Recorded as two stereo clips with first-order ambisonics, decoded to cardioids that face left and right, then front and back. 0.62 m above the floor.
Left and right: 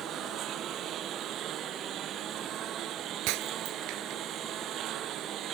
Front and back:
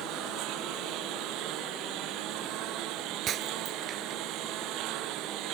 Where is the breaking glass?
120° right.